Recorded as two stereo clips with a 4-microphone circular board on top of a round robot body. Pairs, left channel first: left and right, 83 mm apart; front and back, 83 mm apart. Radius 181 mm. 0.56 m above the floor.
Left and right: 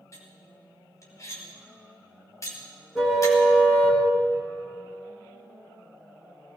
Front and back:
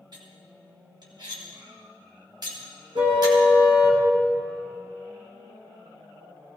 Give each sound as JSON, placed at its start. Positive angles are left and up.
{"t": 0.1, "sound": "cutlery clinking", "azimuth_deg": 145, "distance_m": 2.5}
{"t": 3.0, "sound": "a car horn", "azimuth_deg": -175, "distance_m": 4.0}